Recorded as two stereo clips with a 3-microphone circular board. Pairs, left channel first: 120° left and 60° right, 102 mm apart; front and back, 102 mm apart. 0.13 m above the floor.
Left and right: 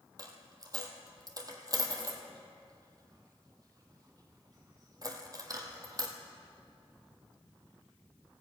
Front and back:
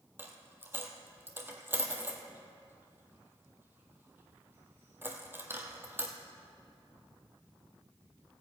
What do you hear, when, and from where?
0.2 s a dropped coin: 110° right, 1.4 m